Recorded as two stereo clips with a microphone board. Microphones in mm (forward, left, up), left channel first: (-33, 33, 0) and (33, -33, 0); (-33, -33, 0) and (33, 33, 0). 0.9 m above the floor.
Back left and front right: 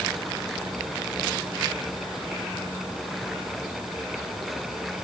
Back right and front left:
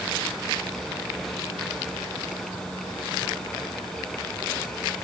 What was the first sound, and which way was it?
Only background noise.